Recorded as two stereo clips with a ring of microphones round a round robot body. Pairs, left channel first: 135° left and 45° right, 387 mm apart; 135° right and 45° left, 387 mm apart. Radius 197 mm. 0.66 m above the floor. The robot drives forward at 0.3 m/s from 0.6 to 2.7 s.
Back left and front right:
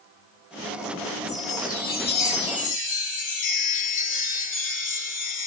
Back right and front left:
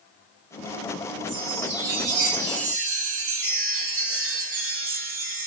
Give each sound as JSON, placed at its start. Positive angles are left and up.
{"t": 1.3, "sound": "a chime", "azimuth_deg": 65, "distance_m": 1.6}